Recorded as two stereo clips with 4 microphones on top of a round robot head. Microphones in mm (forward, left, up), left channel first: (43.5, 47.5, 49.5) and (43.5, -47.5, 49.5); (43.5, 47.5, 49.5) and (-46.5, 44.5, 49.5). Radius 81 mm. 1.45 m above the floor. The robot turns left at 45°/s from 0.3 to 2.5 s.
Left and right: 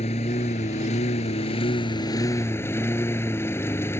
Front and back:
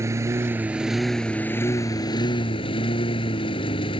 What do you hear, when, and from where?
0.0 s a lawn mower: 125° left; by 4.0 s 25° left